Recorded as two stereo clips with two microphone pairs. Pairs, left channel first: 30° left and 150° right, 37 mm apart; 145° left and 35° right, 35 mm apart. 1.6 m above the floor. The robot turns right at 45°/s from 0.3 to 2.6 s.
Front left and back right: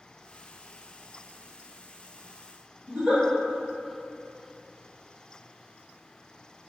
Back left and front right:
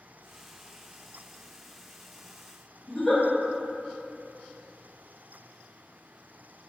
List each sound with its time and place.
2.9 s a giggle: 135° right, 1.7 m